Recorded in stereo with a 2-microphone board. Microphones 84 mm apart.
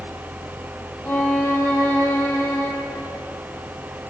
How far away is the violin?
About 1.5 m.